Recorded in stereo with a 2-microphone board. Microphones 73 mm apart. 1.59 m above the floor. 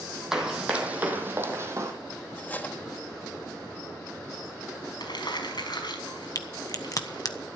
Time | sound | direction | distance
0.3 | running footsteps | 10° right (ahead or behind) | 2.5 m
2.4 | cutlery clinking | 20° left (ahead or behind) | 1.2 m
5.0 | crumpling | 75° left (ahead or behind) | 5 m
6.3 | a crack | 50° left (ahead or behind) | 1.1 m